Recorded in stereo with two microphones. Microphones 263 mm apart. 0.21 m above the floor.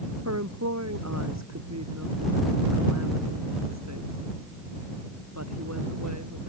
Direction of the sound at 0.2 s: 85° right.